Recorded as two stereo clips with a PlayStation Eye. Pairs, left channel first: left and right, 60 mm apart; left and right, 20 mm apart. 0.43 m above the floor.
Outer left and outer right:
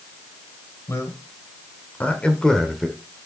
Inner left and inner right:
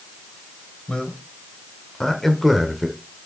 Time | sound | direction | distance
0.9 | a man speaking | 45° left (ahead or behind) | 2 m